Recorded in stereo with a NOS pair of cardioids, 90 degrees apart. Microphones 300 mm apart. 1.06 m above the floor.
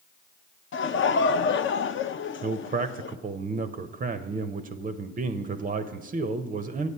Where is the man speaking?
30° right, 0.5 m.